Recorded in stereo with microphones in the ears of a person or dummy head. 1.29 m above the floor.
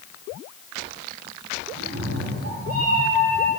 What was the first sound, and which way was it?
A cat meowing, 75° right (ahead or behind).